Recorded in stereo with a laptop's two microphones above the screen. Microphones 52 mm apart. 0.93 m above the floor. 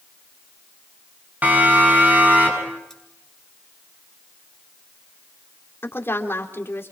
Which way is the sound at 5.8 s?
50° left (ahead or behind).